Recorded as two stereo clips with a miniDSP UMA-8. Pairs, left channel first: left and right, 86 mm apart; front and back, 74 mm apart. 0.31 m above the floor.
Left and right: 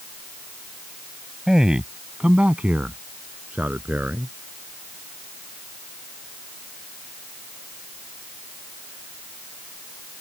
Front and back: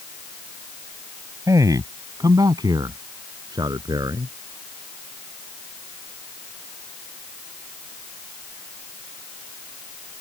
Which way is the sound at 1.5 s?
170° right.